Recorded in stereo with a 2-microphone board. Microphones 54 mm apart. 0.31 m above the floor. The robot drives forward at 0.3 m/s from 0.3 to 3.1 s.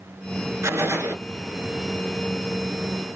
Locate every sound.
0.6 s a gunshot: 65° right (ahead or behind), 0.8 m; by 1.2 s 55° right (ahead or behind), 0.9 m